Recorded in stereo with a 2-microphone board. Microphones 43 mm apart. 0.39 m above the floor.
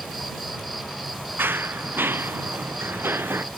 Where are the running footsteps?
60° right (ahead or behind); by 3.5 s 65° right (ahead or behind).